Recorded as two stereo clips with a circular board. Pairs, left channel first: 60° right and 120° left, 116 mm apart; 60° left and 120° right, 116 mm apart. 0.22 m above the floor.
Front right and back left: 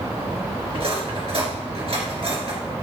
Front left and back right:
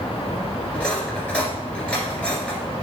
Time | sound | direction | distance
0.7 | cutlery clinking | 140° left | 2.5 m